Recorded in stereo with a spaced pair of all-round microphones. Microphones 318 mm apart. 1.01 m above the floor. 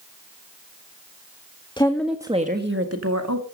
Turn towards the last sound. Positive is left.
turn(degrees=-65)  # may be behind; listen again after turning